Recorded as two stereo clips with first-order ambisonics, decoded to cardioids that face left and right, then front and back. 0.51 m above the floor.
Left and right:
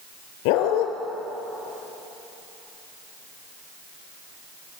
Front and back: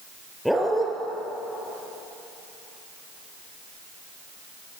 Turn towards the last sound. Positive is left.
turn(degrees=90)